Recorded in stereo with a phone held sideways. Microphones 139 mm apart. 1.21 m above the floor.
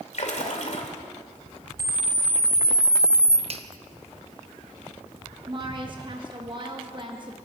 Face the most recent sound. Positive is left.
turn(degrees=-35)  # may be behind; listen again after turning